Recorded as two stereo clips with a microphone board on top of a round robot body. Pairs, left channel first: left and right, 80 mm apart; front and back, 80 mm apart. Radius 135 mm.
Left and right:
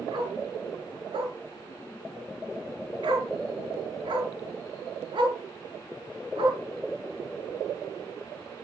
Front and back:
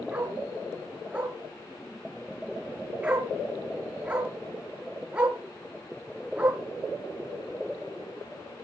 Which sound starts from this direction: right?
A dog barking, at 0.1 s.